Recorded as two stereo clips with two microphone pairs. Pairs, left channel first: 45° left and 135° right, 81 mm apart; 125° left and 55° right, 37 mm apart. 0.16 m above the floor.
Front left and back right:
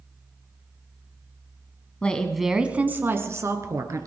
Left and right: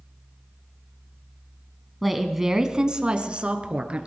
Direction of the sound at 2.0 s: 40° left.